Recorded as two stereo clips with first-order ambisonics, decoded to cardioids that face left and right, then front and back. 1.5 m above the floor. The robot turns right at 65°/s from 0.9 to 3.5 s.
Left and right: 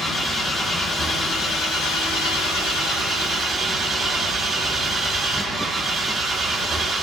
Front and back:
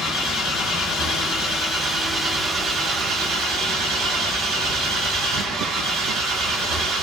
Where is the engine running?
10° left, 1.4 m; by 7.0 s straight behind, 1.4 m.